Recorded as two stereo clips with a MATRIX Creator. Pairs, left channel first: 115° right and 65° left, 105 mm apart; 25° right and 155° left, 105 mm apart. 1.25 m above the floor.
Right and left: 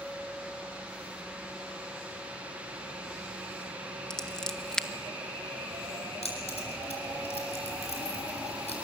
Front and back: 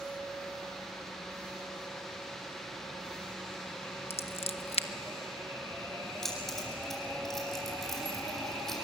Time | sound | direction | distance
4.1 | scissors | 30° right | 1.1 m
6.2 | keys jangling | 110° right | 7 m